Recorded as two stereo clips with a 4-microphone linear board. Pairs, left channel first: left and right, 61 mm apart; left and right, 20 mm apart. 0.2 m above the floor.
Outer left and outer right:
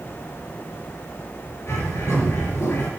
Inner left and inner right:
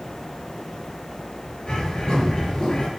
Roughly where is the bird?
Left.